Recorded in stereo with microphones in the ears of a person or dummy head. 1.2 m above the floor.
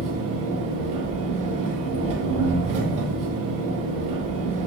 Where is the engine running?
35° right (ahead or behind), 1.6 m.